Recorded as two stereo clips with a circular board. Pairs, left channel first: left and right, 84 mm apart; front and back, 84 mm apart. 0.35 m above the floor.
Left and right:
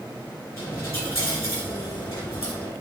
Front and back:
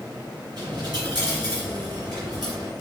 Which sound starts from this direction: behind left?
A dropped coin, at 0.6 s.